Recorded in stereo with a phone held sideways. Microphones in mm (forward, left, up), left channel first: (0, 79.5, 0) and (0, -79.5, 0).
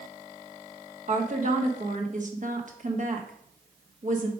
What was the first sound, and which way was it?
A woman speaking, 50° right (ahead or behind).